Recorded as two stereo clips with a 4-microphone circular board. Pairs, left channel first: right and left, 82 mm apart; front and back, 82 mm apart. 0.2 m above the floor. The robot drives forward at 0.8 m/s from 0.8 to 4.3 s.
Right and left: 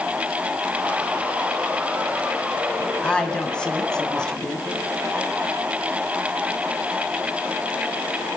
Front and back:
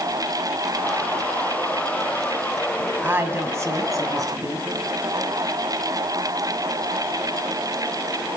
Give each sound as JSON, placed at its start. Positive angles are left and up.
{"t": 3.0, "sound": "a woman speaking", "azimuth_deg": -150, "distance_m": 1.6}